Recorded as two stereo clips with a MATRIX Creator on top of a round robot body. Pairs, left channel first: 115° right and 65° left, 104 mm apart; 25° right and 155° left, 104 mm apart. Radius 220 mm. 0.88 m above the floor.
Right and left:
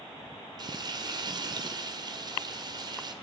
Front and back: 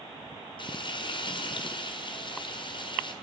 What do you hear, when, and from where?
0.6 s frying: 15° left, 1.2 m